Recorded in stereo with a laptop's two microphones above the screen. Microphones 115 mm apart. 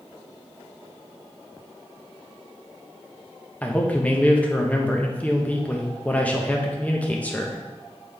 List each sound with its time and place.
3.6 s a man speaking: 15° left (ahead or behind), 1.1 m